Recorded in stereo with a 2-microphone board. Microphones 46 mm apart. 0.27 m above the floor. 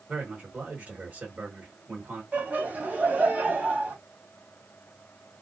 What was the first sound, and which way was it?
A man speaking, 30° right (ahead or behind).